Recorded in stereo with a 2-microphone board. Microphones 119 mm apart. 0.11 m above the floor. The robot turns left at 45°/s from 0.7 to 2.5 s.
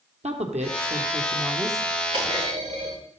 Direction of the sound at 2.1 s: 45° right (ahead or behind).